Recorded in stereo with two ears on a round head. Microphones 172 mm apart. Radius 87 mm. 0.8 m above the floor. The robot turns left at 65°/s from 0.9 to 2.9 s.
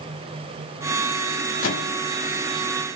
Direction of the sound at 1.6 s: 75° left (ahead or behind).